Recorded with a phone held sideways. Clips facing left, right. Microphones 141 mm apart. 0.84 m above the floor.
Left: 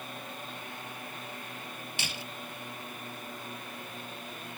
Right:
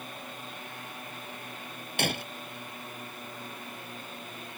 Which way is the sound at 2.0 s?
60° right (ahead or behind).